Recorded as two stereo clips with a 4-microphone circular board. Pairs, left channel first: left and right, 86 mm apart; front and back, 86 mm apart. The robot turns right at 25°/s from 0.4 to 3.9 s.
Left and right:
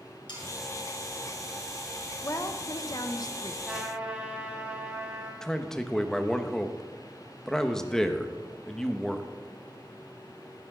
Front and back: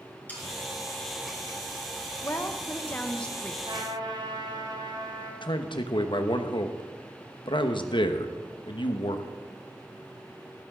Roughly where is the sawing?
Left.